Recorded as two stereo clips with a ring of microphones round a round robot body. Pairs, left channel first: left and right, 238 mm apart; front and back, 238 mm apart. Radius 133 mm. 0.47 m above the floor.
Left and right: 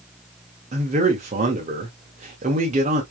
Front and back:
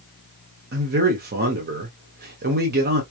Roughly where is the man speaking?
Behind right.